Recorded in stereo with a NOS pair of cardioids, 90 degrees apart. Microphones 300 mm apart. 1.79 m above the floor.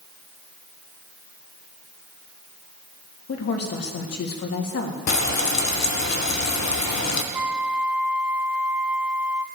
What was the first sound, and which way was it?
A woman speaking, 55° left.